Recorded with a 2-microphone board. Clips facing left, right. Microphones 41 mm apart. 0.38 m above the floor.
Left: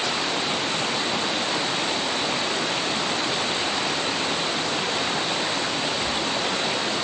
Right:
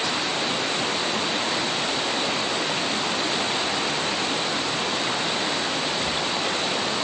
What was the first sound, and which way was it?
Only background noise.